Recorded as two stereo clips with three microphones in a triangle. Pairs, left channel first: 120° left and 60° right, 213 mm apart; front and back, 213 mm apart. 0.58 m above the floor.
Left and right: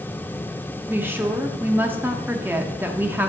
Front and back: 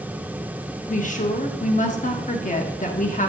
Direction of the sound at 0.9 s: 15° left.